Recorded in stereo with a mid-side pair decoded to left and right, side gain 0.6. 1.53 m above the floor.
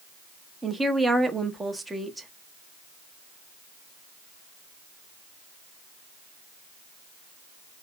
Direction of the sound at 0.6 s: 10° right.